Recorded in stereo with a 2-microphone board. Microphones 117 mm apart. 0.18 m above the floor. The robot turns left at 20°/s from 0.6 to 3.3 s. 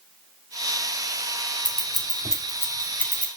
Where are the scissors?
45° left (ahead or behind), 1.3 m; by 3.3 s 10° left (ahead or behind), 1.3 m.